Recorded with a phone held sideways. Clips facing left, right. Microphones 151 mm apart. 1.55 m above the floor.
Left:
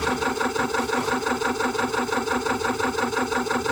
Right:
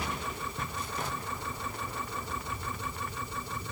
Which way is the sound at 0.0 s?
85° left.